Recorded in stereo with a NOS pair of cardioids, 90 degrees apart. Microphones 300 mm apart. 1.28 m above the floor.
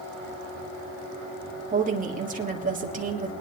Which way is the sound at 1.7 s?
25° right.